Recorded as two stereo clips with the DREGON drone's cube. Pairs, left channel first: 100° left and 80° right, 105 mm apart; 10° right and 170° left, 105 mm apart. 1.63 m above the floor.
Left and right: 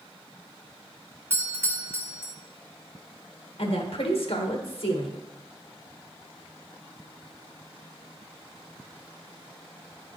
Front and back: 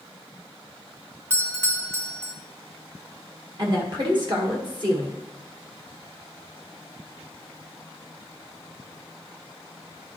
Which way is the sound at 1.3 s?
135° right.